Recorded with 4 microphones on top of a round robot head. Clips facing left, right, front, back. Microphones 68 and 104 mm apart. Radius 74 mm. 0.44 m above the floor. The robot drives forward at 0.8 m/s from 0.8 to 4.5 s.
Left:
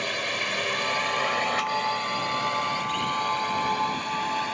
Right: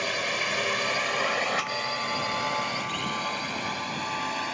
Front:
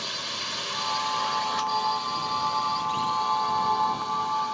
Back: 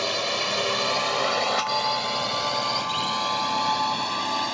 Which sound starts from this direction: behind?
A drone, at 0.0 s.